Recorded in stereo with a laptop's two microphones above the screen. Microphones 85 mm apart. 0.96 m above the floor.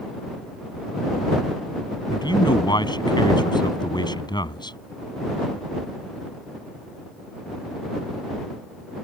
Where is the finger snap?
I don't hear a finger snap.